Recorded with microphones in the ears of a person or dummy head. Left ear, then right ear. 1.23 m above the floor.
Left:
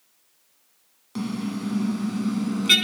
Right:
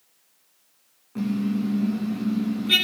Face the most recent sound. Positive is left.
turn(degrees=70)  # may be behind; listen again after turning